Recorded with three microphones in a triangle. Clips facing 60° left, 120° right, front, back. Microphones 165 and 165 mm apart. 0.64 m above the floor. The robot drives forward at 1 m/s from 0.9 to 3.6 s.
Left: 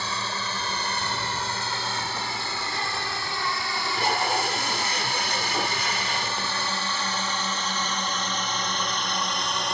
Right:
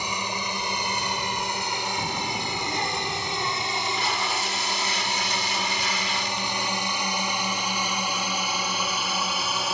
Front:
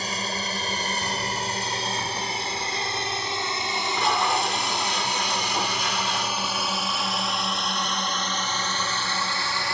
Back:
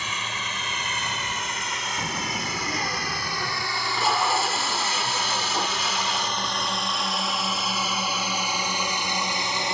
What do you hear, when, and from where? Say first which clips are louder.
0.0 s a drone: right 1 dB, front 4 dB; 45° right; by 9.7 s 160° left
2.0 s a child speaking: right 2 dB, even; 150° right; by 3.7 s 175° right
3.8 s tape being pulled: left 5 dB, even; 95° left